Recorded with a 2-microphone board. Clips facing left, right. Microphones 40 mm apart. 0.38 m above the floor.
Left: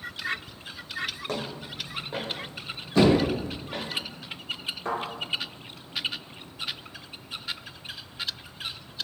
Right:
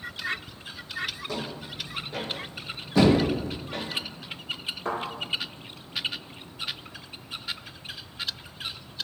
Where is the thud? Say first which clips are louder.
Even; 5° right (ahead or behind), 1.4 m.